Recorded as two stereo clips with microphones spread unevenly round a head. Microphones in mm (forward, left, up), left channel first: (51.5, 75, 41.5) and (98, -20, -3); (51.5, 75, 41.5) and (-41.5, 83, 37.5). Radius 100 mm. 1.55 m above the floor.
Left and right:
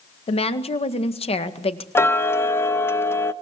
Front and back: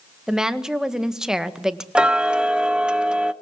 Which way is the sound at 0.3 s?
90° left.